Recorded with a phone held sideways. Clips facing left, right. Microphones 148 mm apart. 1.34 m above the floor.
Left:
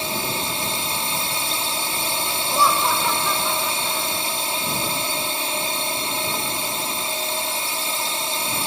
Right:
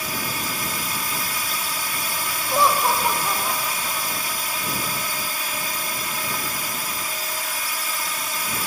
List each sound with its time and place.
0.0 s a drone: 25° left (ahead or behind)
2.5 s laughter: 25° right (ahead or behind)